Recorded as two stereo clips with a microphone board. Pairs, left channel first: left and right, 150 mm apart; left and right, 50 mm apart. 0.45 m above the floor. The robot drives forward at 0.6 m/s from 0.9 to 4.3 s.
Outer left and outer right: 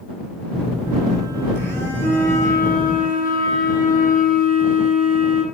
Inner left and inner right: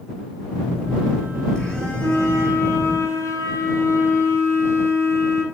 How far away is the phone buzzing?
About 5 m.